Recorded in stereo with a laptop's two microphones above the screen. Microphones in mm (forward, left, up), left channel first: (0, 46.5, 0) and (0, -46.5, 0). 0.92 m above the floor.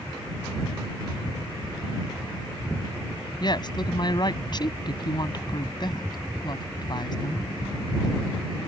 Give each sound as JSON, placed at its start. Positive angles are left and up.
{"t": 3.4, "sound": "a woman speaking", "side_deg": 45}